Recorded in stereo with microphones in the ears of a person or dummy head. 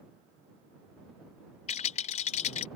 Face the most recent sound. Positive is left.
turn(degrees=40)  # may be behind; listen again after turning